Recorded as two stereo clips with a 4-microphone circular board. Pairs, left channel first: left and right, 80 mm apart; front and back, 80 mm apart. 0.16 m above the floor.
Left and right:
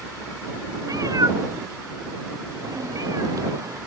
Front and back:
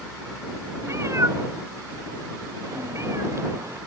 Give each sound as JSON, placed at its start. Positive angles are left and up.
{"t": 0.8, "sound": "a cat meowing", "azimuth_deg": -130}